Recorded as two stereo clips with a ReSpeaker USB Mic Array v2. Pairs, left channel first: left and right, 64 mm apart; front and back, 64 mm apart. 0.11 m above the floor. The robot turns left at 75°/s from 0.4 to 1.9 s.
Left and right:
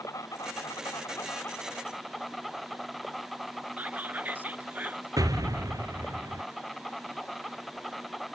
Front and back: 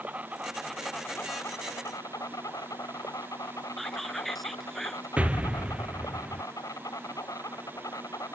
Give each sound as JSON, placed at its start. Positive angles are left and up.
{"t": 0.0, "sound": "an insect", "azimuth_deg": 115}
{"t": 3.8, "sound": "whispering", "azimuth_deg": -85}
{"t": 5.2, "sound": "an explosion", "azimuth_deg": -110}